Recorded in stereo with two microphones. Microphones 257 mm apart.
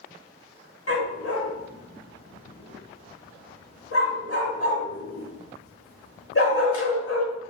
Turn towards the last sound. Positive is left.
turn(degrees=60)  # may be behind; listen again after turning